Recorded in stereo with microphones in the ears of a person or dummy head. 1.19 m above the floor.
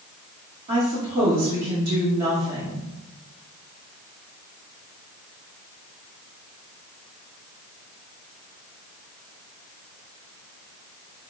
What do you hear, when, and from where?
0.7 s a woman speaking: 45° right (ahead or behind), 1.8 m